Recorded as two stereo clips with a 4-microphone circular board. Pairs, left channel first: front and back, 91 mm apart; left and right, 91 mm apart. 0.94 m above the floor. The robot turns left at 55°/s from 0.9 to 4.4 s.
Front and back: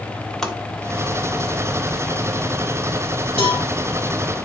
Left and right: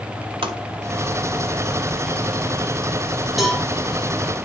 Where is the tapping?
85° right, 1.7 m.